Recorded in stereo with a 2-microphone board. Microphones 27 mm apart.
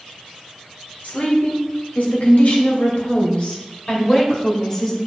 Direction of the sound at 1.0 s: 70° left (ahead or behind).